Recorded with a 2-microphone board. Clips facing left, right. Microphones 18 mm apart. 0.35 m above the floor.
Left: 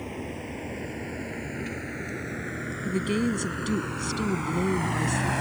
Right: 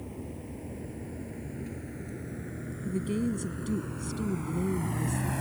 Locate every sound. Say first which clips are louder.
0.0 s a vehicle: left 6 dB; 65° left (ahead or behind); by 5.4 s 45° left (ahead or behind)
2.9 s a woman speaking: left 4 dB; 50° left (ahead or behind)